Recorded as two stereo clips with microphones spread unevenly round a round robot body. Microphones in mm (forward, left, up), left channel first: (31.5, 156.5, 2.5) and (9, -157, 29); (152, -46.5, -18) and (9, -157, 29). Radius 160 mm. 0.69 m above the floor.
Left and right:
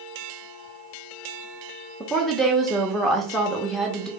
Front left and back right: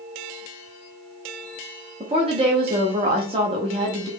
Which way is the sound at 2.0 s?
160° left.